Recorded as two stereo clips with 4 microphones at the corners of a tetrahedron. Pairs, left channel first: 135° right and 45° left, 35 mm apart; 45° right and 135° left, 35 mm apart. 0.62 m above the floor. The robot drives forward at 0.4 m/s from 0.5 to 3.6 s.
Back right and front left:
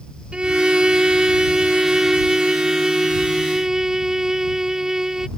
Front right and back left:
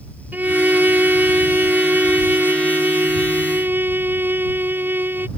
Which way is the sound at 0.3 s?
105° left.